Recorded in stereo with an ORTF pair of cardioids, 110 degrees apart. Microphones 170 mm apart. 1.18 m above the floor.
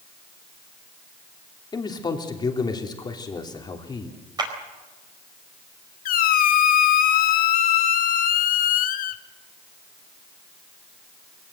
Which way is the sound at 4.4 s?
25° right.